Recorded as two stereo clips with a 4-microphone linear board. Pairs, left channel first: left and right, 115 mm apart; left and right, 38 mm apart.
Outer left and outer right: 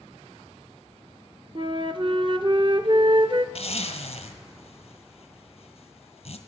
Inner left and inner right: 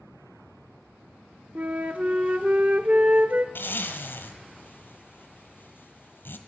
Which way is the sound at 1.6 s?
45° right (ahead or behind).